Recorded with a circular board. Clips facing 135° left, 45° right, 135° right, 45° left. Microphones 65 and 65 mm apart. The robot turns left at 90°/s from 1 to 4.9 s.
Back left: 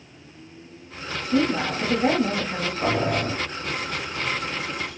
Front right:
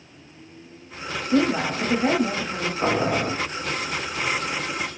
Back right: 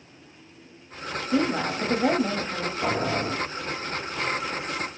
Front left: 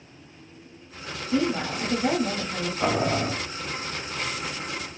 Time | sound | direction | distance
1.3 | a woman speaking | 75° right | 1.1 m
2.8 | boiling | 20° left | 1.6 m